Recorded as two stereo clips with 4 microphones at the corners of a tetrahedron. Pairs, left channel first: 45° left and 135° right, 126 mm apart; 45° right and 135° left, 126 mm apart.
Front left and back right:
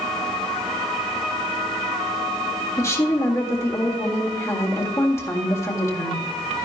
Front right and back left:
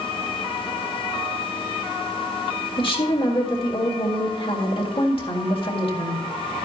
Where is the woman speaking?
15° right, 1.7 m.